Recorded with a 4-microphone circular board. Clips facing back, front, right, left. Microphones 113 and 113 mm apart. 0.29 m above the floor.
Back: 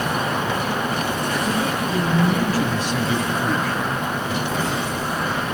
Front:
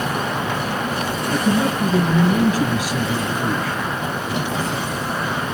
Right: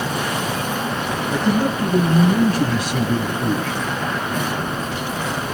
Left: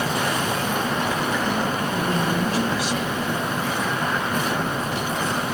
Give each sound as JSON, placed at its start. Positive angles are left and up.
{"t": 1.3, "sound": "a man speaking", "azimuth_deg": -25, "distance_m": 2.0}